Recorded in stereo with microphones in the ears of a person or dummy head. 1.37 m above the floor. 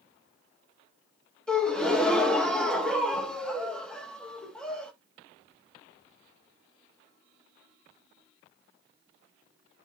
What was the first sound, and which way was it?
A gasp, 5° left (ahead or behind).